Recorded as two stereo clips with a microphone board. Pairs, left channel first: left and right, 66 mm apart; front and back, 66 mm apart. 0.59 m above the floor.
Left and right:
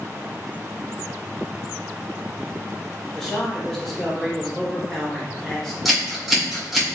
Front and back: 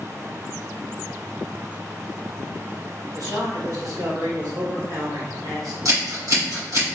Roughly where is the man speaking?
Behind.